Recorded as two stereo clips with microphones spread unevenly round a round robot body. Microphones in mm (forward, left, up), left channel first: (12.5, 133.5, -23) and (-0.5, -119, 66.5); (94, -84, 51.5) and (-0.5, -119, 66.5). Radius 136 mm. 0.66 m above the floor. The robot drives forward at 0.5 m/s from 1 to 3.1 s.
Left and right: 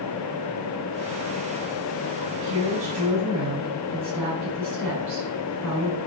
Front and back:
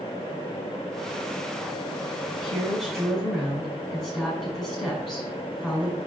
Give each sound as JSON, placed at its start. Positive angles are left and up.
{"t": 2.3, "sound": "a woman speaking", "azimuth_deg": -65, "distance_m": 5.5}